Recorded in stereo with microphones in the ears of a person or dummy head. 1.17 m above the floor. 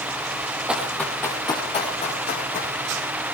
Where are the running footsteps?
5° right (ahead or behind), 2.5 m; by 2.7 s 45° left (ahead or behind), 4 m.